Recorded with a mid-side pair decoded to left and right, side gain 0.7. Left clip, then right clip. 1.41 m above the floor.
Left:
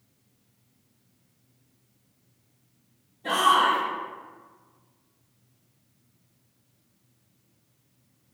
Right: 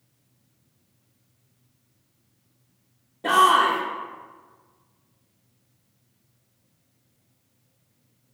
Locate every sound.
3.2 s a shout: 65° right, 0.7 m